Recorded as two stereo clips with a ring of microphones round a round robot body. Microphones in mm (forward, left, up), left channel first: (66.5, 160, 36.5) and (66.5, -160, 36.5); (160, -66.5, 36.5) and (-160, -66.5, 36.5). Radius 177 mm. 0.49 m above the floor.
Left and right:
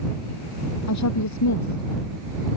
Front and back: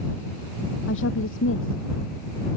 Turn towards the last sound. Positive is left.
turn(degrees=60)